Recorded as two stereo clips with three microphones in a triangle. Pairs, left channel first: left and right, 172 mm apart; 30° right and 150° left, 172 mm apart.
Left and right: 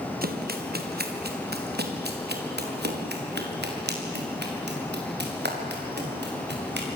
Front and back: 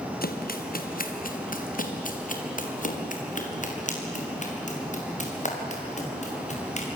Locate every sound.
0.2 s running footsteps: 60° right, 3 m; by 6.9 s 80° right, 8 m